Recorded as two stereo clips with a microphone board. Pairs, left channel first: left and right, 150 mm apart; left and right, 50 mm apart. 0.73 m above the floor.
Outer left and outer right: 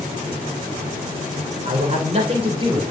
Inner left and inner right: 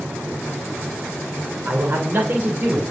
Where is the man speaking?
55° right (ahead or behind), 3 m; by 2.8 s 35° right (ahead or behind), 4 m.